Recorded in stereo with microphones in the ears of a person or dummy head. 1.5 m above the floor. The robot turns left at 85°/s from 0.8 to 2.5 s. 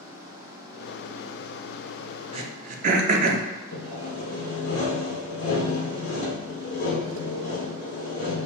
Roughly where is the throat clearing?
Right.